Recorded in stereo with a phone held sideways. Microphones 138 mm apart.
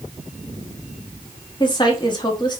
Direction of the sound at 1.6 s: 30° left (ahead or behind).